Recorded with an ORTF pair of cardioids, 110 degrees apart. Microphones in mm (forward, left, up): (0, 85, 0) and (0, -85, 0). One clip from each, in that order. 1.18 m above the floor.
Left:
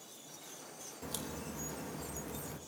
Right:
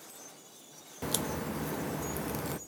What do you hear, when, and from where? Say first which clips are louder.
1.0 s a crack: right 10 dB; 50° right, 0.9 m